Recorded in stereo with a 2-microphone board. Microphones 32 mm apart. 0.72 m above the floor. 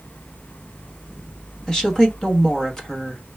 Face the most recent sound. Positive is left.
turn(degrees=20)  # may be behind; listen again after turning